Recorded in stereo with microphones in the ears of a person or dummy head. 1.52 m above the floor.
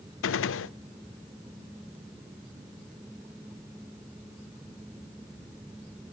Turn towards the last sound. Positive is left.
turn(degrees=60)  # may be behind; listen again after turning